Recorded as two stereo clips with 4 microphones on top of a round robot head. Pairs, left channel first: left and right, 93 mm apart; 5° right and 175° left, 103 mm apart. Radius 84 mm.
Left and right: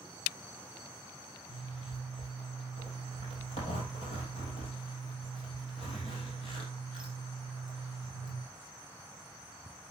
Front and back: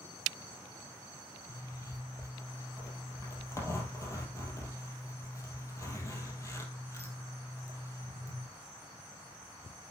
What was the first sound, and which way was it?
A zipper, 55° left.